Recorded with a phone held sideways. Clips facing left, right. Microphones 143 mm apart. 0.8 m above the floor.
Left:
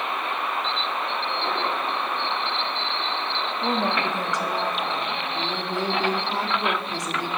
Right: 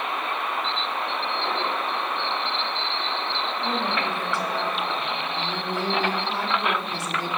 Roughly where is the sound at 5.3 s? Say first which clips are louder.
Left 3 dB; centre.